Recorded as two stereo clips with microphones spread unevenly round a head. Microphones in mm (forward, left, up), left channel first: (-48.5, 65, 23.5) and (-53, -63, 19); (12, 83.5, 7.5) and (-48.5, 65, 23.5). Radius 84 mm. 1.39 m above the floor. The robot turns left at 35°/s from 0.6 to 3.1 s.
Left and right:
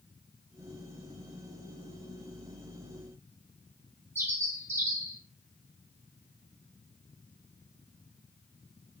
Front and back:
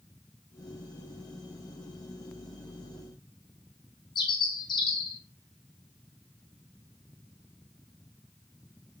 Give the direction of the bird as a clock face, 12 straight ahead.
1 o'clock.